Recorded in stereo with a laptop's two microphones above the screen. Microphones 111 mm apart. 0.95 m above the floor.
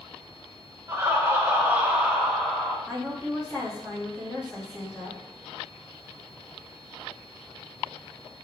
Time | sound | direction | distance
0.9 | laughter | 25° right (ahead or behind) | 0.9 m
2.9 | a woman speaking | 25° left (ahead or behind) | 1.4 m